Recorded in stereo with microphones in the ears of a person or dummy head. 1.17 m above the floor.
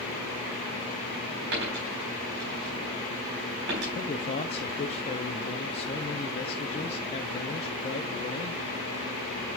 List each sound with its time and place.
1.5 s a dropped coin: 70° right (ahead or behind), 4 m
4.0 s a man speaking: 35° left (ahead or behind), 0.5 m